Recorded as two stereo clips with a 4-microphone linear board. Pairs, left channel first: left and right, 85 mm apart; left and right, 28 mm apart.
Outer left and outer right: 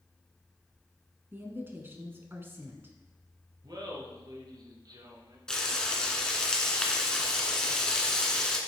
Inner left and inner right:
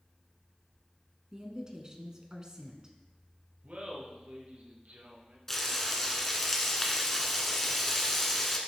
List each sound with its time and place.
1.3 s a woman speaking: 25° right (ahead or behind), 1.3 m
3.6 s laughter: 55° right (ahead or behind), 2.5 m
5.5 s frying: 10° left (ahead or behind), 1.2 m